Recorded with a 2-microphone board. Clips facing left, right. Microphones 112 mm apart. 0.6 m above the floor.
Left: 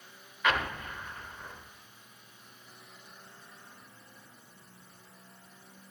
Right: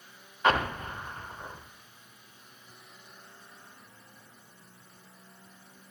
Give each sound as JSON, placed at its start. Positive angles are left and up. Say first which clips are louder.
{"t": 0.4, "sound": "an explosion", "louder": "right 4 dB", "side_deg": -35, "distance_m": 0.6}